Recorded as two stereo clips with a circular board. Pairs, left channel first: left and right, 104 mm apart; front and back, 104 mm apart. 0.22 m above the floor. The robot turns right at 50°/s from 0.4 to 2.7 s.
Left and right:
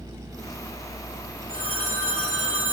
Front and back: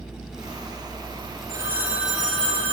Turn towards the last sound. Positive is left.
turn(degrees=-65)